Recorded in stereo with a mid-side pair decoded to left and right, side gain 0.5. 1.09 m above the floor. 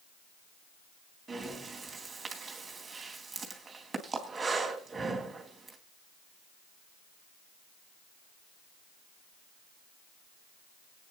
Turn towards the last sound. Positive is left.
turn(degrees=-25)